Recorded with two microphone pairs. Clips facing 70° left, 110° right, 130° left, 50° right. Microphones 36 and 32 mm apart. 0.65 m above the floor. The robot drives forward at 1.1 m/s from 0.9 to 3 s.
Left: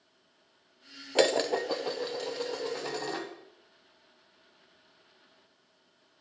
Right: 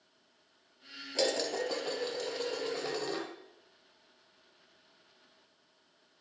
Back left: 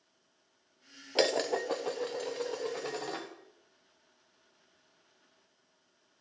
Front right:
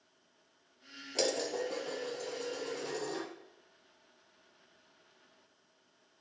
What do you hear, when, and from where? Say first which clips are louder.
1.1 s dishes clattering: left 6 dB, back left 5 dB; 90° left, 0.7 m; by 3.3 s 165° left, 2 m